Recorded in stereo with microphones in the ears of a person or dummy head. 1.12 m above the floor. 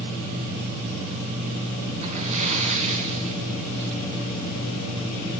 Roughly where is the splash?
Right.